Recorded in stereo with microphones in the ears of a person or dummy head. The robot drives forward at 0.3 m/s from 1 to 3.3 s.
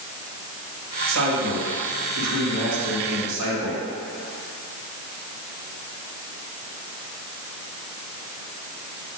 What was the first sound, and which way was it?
A man speaking, 85° right.